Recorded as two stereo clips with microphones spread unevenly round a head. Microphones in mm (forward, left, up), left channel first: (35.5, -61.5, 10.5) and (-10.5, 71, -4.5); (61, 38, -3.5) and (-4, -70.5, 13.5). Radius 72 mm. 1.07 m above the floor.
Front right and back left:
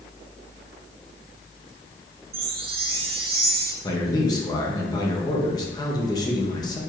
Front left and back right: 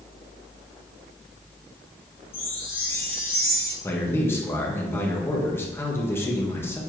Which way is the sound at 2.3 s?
135° left.